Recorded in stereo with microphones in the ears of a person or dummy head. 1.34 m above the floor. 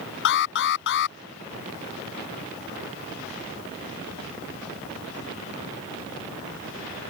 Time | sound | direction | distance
0.2 | an alarm | 65° left (ahead or behind) | ?